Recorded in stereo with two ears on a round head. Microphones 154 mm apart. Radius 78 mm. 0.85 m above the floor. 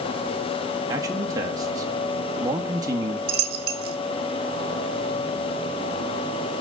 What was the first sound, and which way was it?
A man speaking, 20° right (ahead or behind).